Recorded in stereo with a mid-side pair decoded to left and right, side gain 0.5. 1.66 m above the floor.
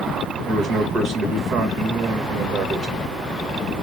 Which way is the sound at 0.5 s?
70° right.